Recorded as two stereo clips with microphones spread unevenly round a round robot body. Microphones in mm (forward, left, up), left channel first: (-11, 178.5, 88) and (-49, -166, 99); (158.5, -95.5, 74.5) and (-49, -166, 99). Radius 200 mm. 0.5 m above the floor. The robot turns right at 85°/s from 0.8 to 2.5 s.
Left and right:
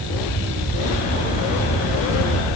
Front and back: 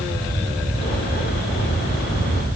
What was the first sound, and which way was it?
Only background noise.